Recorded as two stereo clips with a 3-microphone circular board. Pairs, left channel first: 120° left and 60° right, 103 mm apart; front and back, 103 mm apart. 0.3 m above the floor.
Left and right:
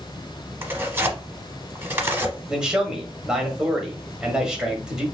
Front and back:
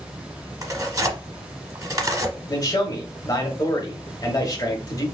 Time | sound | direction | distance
0.6 | tearing paper | 125° right | 0.8 m
2.5 | a man speaking | 20° left | 1.2 m